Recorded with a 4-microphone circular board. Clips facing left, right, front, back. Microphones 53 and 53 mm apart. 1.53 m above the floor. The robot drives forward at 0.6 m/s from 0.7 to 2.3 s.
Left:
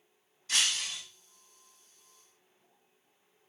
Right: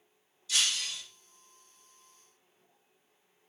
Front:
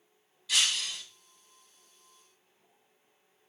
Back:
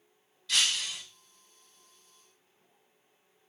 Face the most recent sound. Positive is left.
turn(degrees=145)